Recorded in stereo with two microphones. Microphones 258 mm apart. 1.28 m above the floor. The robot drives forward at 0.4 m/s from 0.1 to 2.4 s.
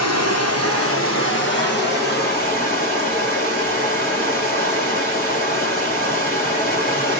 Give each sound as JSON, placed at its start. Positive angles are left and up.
{"t": 0.0, "sound": "running water", "side_deg": 75, "distance_m": 0.8}